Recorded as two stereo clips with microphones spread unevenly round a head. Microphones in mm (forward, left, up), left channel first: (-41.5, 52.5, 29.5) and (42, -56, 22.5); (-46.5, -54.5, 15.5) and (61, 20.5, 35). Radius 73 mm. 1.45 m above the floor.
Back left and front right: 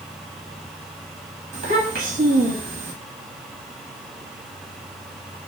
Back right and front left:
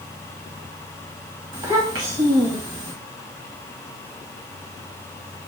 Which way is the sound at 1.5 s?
15° right.